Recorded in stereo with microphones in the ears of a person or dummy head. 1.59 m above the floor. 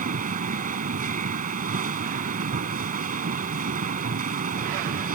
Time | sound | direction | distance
0.0 | a machine running | 40° right (ahead or behind) | ?